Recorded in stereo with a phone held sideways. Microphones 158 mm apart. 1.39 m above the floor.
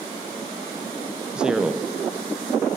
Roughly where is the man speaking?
Centre.